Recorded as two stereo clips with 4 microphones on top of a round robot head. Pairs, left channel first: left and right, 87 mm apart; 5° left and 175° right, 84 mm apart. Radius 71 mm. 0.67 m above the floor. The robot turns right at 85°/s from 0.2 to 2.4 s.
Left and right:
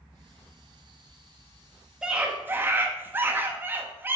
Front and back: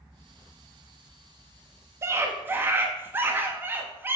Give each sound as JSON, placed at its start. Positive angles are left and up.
{"t": 2.0, "sound": "a scream", "azimuth_deg": -165, "distance_m": 1.0}